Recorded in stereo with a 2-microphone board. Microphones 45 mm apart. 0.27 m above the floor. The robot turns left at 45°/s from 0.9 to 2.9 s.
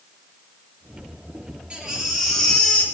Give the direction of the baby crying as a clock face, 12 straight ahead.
5 o'clock.